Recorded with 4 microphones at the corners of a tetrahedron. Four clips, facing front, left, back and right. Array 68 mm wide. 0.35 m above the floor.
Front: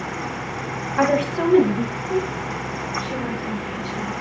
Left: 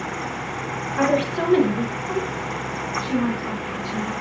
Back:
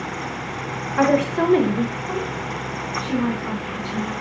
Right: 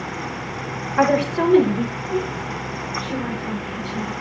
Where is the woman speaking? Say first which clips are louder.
Right 3 dB, back 2 dB; 125° right, 1.3 m; by 4.1 s 150° left, 4.5 m.